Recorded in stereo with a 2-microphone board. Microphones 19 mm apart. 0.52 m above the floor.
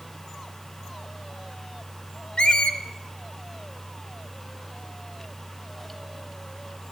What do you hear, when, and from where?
2.4 s a squeak: 60° left (ahead or behind), 0.5 m